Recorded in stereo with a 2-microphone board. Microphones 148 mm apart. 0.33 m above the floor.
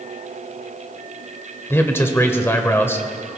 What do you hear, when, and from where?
1.7 s a man speaking: 15° left (ahead or behind), 1.0 m